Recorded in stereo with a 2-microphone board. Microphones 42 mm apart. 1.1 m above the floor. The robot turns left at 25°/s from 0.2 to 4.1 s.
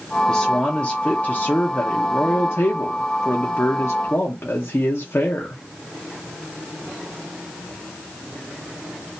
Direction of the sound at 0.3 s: 170° left.